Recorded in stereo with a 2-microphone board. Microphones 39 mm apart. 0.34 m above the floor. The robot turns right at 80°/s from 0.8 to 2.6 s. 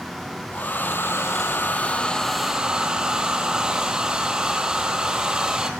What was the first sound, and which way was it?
A hair dryer, 55° left.